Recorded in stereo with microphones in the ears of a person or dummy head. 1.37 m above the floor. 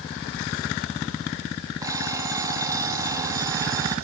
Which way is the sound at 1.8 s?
25° right (ahead or behind).